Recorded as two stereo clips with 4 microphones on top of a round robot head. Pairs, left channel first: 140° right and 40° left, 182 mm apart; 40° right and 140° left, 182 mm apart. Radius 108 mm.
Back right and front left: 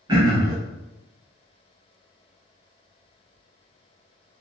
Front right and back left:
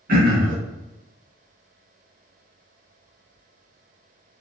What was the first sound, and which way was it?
Throat clearing, 100° left.